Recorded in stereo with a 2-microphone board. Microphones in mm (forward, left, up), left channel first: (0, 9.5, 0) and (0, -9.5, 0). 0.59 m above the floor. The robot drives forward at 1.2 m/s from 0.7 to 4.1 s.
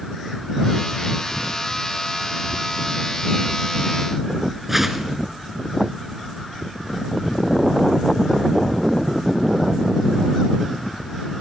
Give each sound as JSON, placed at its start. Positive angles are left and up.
{"t": 4.7, "sound": "a whoosh", "side_deg": -10, "distance_m": 1.8}